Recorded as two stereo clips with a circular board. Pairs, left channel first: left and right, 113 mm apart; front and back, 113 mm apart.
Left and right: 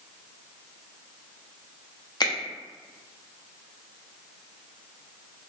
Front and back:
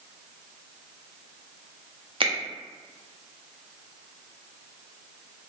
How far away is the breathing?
I don't hear breathing.